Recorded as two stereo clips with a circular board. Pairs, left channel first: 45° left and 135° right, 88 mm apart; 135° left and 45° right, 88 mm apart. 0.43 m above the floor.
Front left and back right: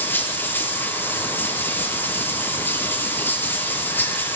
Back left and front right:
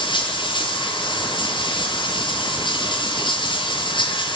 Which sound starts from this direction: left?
Running water, at 0.0 s.